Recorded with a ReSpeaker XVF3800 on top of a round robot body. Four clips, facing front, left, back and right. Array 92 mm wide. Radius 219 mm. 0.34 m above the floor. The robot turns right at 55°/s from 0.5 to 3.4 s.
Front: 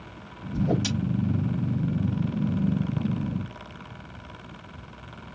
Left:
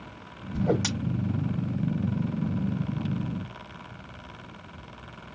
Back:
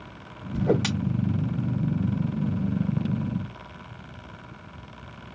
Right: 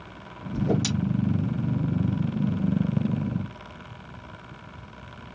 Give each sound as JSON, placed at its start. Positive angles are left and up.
{"t": 0.5, "sound": "a whoosh", "azimuth_deg": 135, "distance_m": 2.0}